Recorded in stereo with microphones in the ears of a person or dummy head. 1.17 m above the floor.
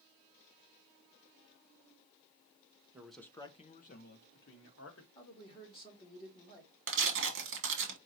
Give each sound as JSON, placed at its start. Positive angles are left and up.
{"t": 2.9, "sound": "a man speaking", "side_deg": -10, "distance_m": 0.7}
{"t": 5.2, "sound": "a man speaking", "side_deg": 25, "distance_m": 2.0}
{"t": 6.9, "sound": "tearing paper", "side_deg": -65, "distance_m": 1.2}